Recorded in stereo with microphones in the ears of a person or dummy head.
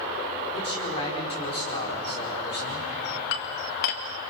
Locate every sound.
0.5 s a man speaking: 30° left (ahead or behind), 5 m
3.3 s dishes clattering: 55° left (ahead or behind), 1.6 m